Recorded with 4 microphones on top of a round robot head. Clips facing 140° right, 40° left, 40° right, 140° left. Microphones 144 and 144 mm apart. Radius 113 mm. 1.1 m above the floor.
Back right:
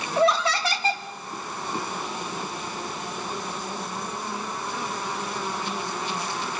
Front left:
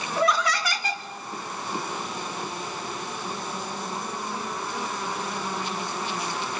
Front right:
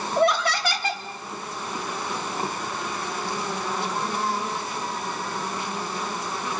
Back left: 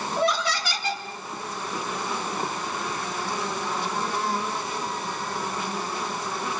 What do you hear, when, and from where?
0.2 s laughter: 80° right, 1.7 m